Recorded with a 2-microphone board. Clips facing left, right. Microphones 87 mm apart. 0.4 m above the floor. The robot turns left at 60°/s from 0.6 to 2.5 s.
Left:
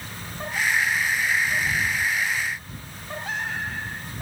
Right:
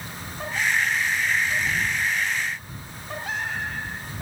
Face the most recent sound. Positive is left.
No sound to turn to.